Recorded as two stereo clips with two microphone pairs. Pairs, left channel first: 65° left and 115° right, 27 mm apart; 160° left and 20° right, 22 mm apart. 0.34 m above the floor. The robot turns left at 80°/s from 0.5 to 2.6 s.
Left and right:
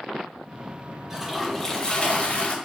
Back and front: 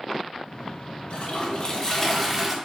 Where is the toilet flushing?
170° left, 0.5 m; by 2.5 s 50° left, 0.5 m.